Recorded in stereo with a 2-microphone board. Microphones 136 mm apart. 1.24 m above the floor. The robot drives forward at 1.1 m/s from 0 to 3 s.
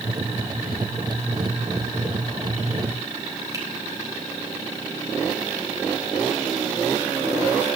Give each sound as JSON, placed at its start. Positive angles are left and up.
{"t": 3.5, "sound": "a finger snap", "side_deg": -25, "distance_m": 4.5}